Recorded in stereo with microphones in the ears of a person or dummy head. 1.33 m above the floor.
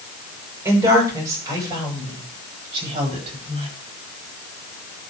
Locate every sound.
0.7 s a woman speaking: 15° right (ahead or behind), 5.5 m; by 3.7 s 30° right (ahead or behind), 9.5 m